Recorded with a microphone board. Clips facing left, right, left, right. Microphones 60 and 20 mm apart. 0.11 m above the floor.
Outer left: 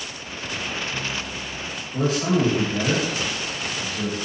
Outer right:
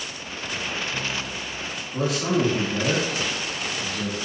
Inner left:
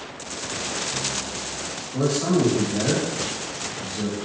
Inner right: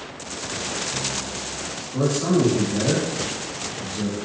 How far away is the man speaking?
About 1.7 m.